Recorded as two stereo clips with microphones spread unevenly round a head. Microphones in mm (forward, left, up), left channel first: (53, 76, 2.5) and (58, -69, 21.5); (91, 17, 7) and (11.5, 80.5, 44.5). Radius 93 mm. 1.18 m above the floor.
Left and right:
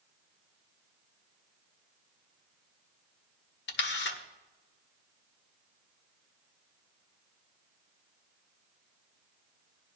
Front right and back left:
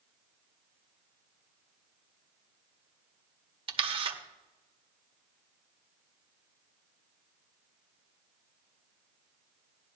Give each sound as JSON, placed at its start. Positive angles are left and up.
{"t": 3.7, "sound": "a camera shutter", "azimuth_deg": 115, "distance_m": 1.6}